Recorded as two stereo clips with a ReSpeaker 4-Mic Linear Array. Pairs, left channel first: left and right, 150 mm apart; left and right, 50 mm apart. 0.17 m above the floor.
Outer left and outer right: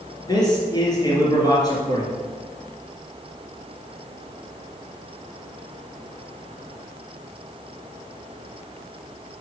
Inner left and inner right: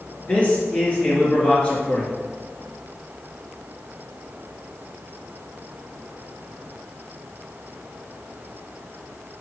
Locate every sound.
0.3 s a man speaking: 25° left (ahead or behind), 2.5 m